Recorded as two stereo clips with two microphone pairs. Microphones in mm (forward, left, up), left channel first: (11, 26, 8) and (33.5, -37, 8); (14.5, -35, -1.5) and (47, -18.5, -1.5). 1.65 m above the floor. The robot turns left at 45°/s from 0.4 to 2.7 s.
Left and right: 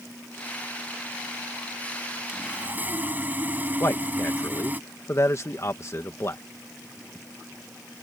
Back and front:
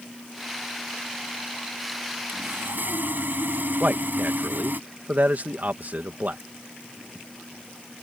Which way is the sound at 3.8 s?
65° left.